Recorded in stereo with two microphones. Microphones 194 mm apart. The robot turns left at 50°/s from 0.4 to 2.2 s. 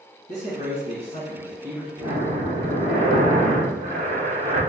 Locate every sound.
0.3 s a man speaking: 95° left, 1.3 m; by 1.9 s 20° left, 1.3 m
2.0 s breathing: 25° right (ahead or behind), 1.6 m; by 4.6 s 35° right (ahead or behind), 1.6 m